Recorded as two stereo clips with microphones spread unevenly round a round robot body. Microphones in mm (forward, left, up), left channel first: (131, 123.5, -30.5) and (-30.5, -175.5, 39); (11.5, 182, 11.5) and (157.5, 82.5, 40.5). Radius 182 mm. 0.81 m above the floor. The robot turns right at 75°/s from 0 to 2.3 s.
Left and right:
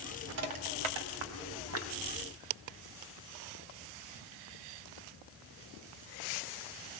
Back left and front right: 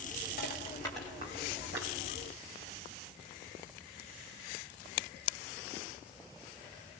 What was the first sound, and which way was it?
Crushing, 175° right.